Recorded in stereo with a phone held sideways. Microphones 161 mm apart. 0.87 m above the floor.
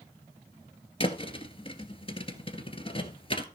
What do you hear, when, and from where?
1.0 s a thud: 35° left (ahead or behind), 1.6 m